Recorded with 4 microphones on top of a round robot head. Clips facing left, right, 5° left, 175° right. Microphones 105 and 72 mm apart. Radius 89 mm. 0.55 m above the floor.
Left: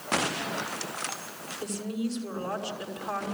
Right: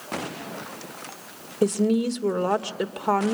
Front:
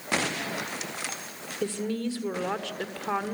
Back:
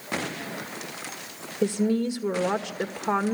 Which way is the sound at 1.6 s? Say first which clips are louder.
Right 12 dB, back 6 dB; 100° right.